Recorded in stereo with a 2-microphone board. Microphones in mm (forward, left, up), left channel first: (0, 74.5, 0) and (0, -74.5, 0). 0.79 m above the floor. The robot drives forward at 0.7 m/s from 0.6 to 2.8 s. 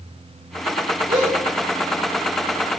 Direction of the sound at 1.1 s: 75° right (ahead or behind).